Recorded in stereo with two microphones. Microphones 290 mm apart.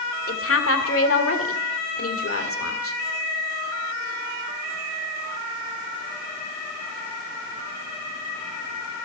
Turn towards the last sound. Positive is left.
turn(degrees=50)  # may be behind; listen again after turning